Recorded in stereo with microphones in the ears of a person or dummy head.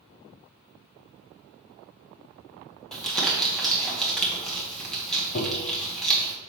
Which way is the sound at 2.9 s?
10° left (ahead or behind).